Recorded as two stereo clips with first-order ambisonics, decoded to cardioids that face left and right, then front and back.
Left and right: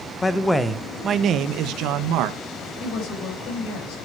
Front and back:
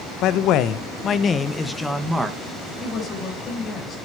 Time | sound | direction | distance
0.2 | a man speaking | 15° left | 1.1 m
2.8 | a woman speaking | 65° left | 4.5 m